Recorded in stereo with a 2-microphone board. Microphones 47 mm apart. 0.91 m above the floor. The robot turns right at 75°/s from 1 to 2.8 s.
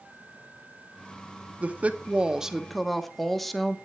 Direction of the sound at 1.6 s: 85° right.